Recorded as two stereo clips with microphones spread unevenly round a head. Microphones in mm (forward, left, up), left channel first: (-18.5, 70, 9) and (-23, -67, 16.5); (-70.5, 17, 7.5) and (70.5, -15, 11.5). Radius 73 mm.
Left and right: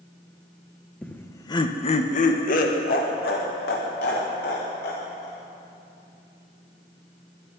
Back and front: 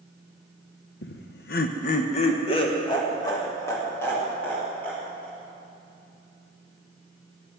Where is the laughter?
175° left, 1.1 m; by 5.4 s 85° left, 3.5 m.